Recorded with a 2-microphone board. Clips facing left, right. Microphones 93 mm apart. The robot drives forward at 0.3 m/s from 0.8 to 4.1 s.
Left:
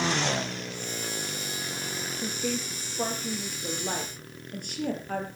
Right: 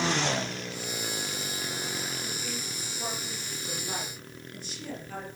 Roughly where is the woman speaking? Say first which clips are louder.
Left 6 dB; left.